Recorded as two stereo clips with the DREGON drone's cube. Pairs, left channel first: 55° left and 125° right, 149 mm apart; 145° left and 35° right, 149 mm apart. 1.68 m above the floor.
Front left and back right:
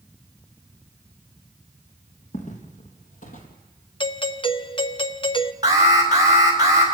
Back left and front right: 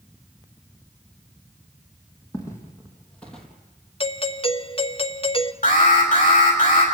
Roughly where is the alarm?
Behind.